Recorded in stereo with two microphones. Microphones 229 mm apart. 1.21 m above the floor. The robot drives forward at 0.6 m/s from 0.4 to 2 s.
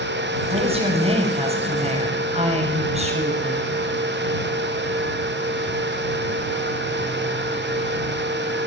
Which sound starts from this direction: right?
A woman speaking, at 0.5 s.